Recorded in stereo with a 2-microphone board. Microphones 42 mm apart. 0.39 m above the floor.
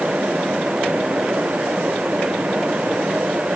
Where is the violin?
I don't hear a violin.